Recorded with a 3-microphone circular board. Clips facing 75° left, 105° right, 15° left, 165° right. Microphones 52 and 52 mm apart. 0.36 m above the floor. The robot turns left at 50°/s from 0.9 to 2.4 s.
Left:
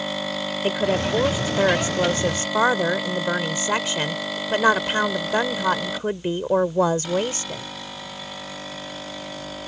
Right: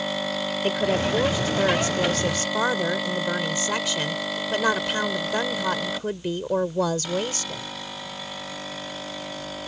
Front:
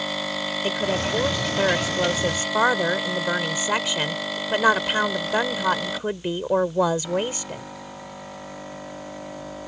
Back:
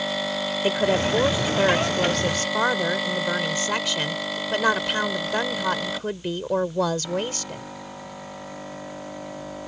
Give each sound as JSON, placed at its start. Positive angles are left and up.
{"t": 0.6, "sound": "a woman speaking", "azimuth_deg": 145}